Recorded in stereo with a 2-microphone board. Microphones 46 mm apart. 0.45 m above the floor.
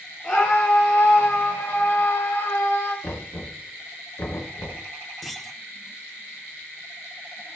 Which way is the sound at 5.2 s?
Centre (ahead or behind).